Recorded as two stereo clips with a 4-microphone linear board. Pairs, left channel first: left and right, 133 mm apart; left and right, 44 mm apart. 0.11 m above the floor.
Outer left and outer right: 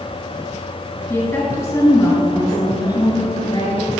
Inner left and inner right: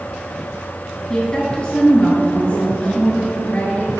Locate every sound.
1.1 s a woman speaking: 15° left (ahead or behind), 2.0 m; by 3.9 s 35° left (ahead or behind), 2 m